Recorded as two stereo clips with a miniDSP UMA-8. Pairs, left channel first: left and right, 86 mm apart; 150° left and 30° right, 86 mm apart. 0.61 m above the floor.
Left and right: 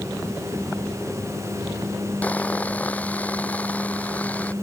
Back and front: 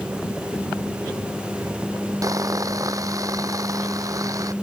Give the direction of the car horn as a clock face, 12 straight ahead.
No car horn in this recording.